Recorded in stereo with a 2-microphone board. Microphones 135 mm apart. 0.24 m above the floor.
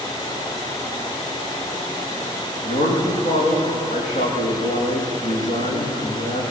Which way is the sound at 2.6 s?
65° left (ahead or behind).